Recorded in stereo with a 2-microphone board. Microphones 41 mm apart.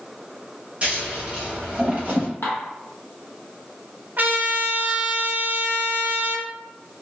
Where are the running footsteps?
I don't hear running footsteps.